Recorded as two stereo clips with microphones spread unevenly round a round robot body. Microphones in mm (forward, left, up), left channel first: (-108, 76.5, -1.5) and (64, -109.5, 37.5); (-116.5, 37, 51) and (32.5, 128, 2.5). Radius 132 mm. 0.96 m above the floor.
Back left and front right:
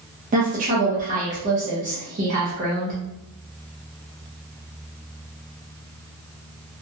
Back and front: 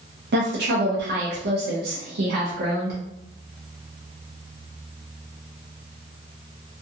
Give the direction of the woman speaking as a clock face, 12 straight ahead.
11 o'clock.